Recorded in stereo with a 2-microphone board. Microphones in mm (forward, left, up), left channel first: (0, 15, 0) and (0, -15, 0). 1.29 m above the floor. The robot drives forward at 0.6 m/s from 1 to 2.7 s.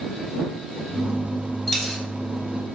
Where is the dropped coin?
5° left (ahead or behind), 1.8 m.